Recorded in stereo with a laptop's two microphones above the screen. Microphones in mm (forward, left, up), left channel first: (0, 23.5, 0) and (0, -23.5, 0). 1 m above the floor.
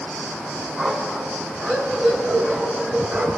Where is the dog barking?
20° right (ahead or behind), 4 m; by 3.3 s 50° right (ahead or behind), 6 m.